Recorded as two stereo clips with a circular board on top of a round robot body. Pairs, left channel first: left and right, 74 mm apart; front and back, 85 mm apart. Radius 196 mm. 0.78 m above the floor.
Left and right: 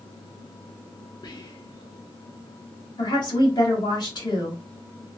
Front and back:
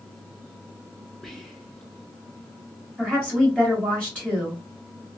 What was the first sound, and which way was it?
Whispering, 90° left.